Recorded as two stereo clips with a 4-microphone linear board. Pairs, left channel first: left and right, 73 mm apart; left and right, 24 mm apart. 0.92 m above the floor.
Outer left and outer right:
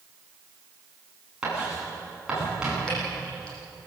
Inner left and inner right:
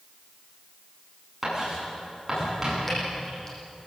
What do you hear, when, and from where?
1.4 s writing: 10° right (ahead or behind), 9.5 m
2.9 s dripping: 15° left (ahead or behind), 9.5 m